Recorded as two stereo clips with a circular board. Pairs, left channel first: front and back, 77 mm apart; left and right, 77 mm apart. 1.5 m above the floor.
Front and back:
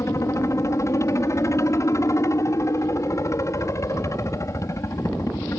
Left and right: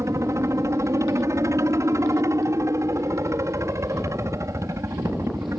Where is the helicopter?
45° right.